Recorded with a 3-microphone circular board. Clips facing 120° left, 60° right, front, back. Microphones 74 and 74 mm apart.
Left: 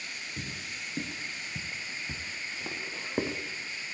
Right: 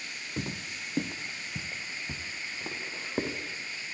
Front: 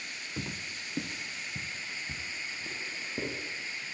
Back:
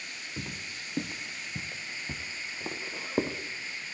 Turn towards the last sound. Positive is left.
turn(degrees=-155)